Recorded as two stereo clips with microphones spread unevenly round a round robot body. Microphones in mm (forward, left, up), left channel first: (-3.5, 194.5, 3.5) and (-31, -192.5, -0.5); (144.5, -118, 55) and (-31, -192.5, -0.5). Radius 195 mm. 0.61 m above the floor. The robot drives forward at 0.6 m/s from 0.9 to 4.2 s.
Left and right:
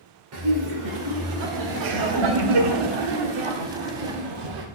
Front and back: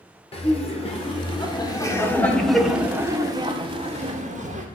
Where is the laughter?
45° right, 1.9 m; by 4.7 s 120° right, 1.5 m.